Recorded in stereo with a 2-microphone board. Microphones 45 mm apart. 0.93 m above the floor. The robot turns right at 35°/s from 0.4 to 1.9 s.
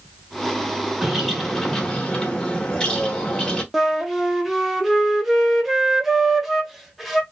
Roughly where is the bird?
Ahead.